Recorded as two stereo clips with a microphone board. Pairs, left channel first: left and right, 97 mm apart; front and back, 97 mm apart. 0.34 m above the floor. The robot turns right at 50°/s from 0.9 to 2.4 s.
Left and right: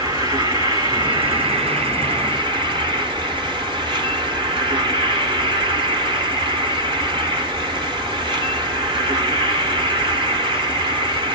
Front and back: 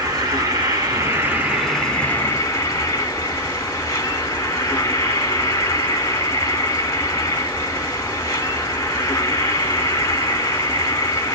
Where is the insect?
135° right, 1.1 m; by 11.4 s 60° right, 1.1 m.